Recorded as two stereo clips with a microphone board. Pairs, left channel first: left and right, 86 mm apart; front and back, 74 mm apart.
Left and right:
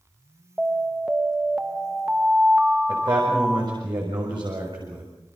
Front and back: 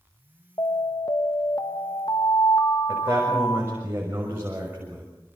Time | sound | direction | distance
0.6 | an alarm | 15° right | 1.6 m
2.9 | a man speaking | 120° right | 6.5 m